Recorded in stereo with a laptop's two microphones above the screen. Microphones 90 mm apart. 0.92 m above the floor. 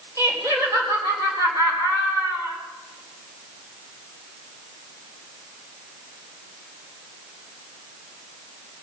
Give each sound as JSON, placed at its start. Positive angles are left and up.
{"t": 0.2, "sound": "laughter", "side_deg": -35, "distance_m": 3.5}